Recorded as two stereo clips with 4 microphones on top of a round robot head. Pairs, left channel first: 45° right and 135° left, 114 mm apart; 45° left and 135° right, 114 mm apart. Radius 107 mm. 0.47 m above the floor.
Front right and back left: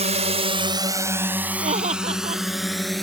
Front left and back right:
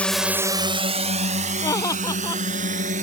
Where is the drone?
125° left; by 3.0 s 135° right.